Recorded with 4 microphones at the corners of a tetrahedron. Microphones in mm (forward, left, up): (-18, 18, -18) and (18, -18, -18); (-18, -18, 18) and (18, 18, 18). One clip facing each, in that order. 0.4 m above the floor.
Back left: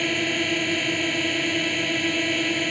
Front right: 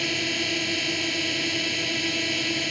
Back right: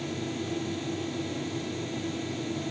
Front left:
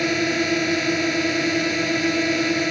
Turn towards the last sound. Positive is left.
turn(degrees=60)